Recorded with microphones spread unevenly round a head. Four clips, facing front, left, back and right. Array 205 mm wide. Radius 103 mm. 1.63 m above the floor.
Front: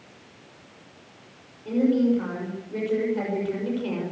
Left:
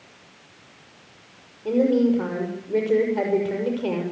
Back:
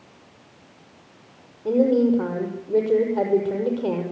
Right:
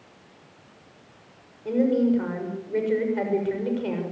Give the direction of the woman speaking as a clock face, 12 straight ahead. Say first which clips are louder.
Left 2 dB, back 3 dB; 7 o'clock.